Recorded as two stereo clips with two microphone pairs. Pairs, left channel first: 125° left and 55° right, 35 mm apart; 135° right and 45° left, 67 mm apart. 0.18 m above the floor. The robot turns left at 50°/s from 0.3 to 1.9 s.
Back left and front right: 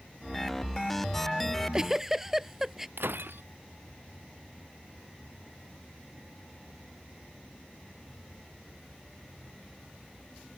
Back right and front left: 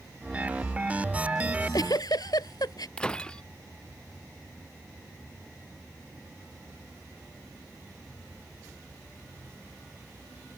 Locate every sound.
1.5 s a giggle: 110° right; by 2.9 s 130° right
3.0 s breaking glass: 60° right